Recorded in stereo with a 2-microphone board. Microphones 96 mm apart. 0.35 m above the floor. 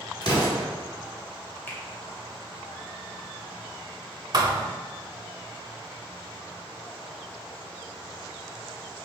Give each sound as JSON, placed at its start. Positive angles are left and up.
{"t": 0.2, "sound": "an explosion", "side_deg": 50, "distance_m": 1.6}
{"t": 1.7, "sound": "a finger snap", "side_deg": 20, "distance_m": 1.1}
{"t": 4.3, "sound": "a thud", "side_deg": -45, "distance_m": 0.6}